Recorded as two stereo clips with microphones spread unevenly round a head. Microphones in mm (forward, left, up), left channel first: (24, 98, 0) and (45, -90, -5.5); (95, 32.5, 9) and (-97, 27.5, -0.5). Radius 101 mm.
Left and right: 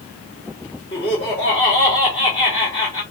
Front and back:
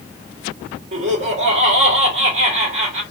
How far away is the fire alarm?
No fire alarm in this recording.